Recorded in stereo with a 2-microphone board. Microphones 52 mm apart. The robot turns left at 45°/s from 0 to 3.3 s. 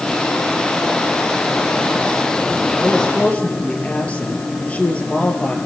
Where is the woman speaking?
5° left (ahead or behind), 4 m; by 5.6 s 25° left (ahead or behind), 4 m.